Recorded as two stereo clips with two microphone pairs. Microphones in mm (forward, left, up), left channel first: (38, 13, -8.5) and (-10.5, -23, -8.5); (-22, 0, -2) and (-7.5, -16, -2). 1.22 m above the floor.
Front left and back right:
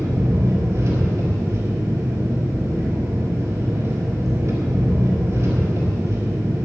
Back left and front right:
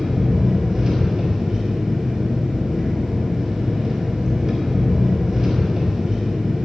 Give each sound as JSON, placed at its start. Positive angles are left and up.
{"t": 0.0, "sound": "an engine running", "azimuth_deg": -115, "distance_m": 4.5}